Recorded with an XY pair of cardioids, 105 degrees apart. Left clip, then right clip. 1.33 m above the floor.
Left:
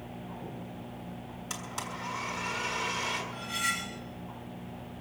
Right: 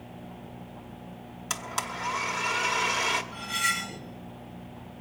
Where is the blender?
65° right, 1.5 m.